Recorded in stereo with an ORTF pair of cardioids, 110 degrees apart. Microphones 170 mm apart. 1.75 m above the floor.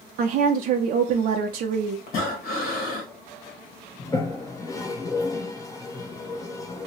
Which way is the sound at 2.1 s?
65° left.